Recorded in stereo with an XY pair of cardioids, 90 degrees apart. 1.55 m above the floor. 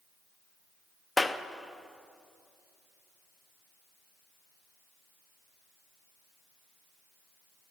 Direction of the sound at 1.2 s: 15° left.